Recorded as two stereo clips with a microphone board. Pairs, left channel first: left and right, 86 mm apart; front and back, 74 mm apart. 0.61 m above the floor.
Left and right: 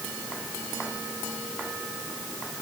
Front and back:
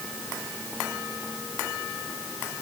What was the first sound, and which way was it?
Only background noise.